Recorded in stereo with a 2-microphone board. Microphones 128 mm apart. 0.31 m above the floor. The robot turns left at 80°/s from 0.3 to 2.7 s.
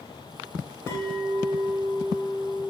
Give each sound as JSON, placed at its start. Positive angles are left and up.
{"t": 0.9, "sound": "a clink", "azimuth_deg": 30, "distance_m": 0.5}